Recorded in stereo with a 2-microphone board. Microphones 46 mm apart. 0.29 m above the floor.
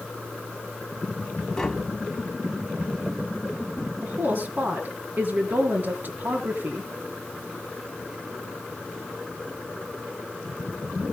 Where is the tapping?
10° left (ahead or behind), 2.5 m.